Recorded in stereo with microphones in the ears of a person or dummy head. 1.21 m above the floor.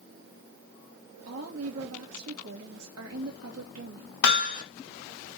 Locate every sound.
1.3 s a woman speaking: 75° right (ahead or behind), 1.5 m
4.2 s hammering: 70° left (ahead or behind), 1.3 m